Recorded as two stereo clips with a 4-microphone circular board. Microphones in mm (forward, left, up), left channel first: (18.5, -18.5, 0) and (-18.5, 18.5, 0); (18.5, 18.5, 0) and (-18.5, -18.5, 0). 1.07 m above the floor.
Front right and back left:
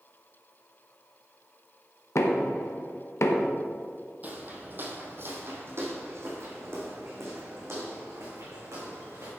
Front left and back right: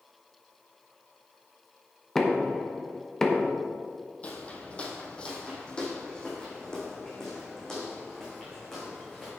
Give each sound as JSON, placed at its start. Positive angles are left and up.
{"t": 2.1, "sound": "knocking", "azimuth_deg": -35, "distance_m": 1.0}
{"t": 4.2, "sound": "footsteps", "azimuth_deg": 95, "distance_m": 1.5}